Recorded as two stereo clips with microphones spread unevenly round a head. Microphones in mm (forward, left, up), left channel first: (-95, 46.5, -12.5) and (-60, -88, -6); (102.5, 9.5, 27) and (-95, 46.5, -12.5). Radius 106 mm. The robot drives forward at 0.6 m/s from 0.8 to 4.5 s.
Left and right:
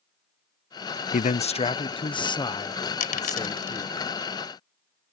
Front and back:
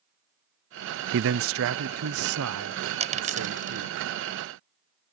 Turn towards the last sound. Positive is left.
turn(degrees=125)